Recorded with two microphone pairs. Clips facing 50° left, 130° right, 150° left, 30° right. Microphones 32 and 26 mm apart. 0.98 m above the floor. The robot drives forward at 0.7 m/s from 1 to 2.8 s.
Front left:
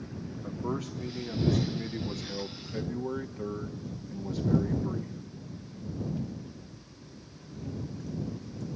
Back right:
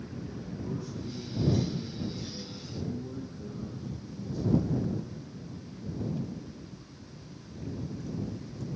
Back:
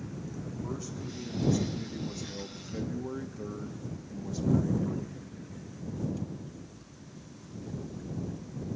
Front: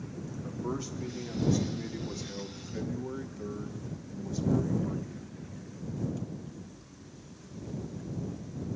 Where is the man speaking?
40° left, 2.0 m; by 5.1 s 80° left, 1.3 m.